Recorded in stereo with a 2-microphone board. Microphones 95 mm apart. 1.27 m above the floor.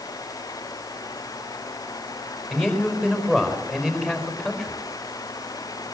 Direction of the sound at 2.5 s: 5° right (ahead or behind).